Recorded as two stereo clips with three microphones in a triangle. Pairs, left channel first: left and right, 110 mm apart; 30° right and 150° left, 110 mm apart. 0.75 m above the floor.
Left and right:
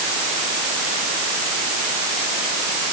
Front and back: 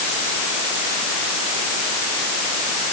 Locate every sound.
Only background noise.